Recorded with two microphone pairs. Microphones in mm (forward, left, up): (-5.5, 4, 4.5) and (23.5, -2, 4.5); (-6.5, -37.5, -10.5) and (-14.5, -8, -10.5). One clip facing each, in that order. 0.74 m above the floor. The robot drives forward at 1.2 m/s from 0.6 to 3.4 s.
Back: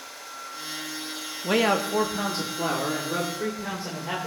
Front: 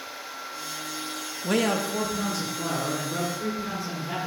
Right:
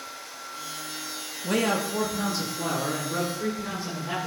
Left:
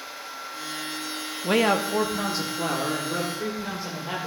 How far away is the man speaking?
About 0.7 m.